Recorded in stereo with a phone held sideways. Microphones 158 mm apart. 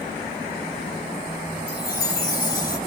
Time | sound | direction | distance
1.7 | a chime | 65° left (ahead or behind) | 3 m